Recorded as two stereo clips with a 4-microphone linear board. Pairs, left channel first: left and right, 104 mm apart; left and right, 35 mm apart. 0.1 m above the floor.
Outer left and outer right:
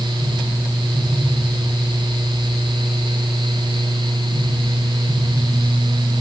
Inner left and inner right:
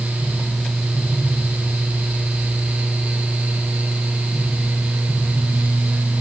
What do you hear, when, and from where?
Only background noise.